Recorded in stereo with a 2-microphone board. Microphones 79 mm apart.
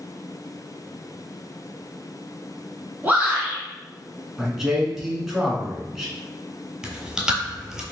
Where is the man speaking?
5° right (ahead or behind), 1.1 m.